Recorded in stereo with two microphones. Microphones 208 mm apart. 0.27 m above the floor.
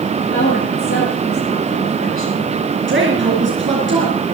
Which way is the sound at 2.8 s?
65° right (ahead or behind).